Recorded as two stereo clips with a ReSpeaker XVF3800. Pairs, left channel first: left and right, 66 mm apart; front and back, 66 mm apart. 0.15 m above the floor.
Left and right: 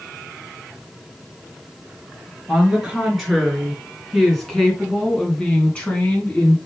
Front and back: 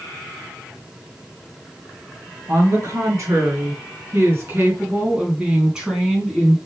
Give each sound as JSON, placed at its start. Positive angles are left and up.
{"t": 2.5, "sound": "a woman speaking", "azimuth_deg": -170, "distance_m": 3.0}